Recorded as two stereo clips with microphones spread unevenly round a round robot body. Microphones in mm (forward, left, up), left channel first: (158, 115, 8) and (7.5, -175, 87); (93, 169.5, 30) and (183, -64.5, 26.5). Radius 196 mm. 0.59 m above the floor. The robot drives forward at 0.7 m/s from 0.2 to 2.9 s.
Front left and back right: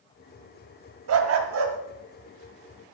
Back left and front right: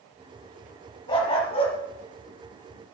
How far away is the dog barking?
About 0.9 m.